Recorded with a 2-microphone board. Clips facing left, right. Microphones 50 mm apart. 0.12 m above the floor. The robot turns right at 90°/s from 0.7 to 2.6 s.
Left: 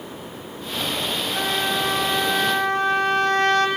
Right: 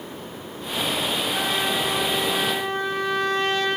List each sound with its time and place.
1.3 s a trumpet: 5° left, 3 m; by 3.7 s 115° left, 3 m